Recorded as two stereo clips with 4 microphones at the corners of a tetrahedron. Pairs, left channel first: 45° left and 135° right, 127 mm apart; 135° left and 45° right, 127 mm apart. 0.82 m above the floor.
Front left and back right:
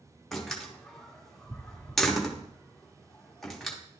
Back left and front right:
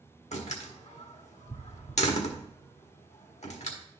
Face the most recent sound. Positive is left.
turn(degrees=135)